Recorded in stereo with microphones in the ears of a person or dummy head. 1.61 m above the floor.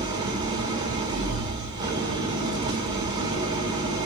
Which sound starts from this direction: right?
An engine running, at 0.0 s.